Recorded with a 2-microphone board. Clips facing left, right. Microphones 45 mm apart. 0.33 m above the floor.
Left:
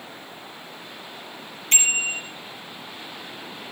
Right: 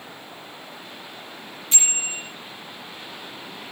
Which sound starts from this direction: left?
A bicycle bell, at 1.7 s.